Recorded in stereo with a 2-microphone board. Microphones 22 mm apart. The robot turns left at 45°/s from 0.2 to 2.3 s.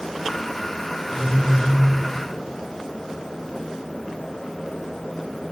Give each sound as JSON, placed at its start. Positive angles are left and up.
{"t": 1.1, "sound": "a phone buzzing", "azimuth_deg": 10, "distance_m": 3.0}